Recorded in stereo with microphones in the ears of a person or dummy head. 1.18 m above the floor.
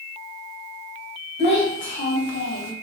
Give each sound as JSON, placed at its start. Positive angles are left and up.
{"t": 1.4, "sound": "a child speaking", "side_deg": 35, "distance_m": 1.0}